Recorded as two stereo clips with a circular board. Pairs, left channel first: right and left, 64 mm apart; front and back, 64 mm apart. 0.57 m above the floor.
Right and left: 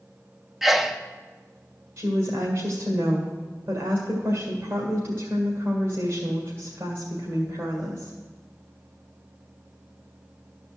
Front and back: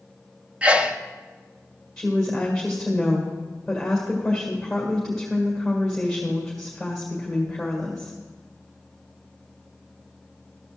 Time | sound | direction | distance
0.6 | a sneeze | 170° left | 0.6 m
2.0 | a woman speaking | 85° left | 1.9 m